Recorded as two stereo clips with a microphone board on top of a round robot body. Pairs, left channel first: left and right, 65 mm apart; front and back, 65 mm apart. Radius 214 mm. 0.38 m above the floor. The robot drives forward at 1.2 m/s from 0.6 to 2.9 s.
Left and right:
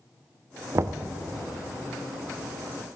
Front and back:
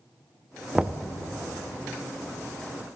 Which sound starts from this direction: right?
Knocking, at 0.8 s.